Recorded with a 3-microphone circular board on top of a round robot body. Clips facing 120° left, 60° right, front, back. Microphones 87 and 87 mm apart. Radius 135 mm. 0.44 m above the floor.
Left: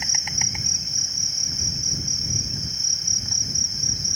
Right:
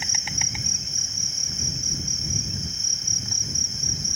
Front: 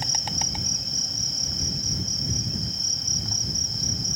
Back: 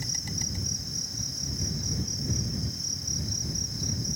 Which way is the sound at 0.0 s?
35° left.